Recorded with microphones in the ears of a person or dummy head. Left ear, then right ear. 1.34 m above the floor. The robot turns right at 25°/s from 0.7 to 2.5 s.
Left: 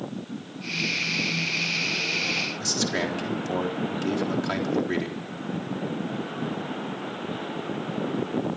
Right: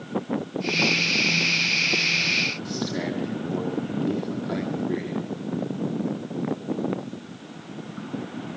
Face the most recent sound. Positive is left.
turn(degrees=65)  # may be behind; listen again after turning